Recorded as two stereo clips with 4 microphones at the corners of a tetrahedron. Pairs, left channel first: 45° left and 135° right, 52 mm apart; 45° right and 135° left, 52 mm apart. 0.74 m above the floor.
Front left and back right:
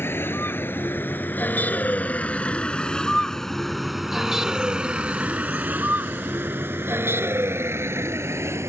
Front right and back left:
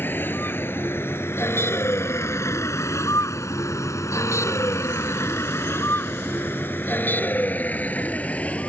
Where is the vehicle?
5° left; by 8.7 s 110° right.